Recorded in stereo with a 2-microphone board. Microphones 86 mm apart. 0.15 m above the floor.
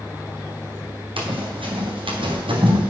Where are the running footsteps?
80° right, 4.5 m.